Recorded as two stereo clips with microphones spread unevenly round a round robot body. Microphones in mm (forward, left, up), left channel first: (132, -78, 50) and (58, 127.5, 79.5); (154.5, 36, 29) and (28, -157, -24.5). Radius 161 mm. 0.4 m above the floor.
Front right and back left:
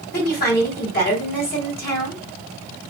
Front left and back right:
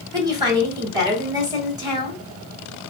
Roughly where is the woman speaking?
Ahead right.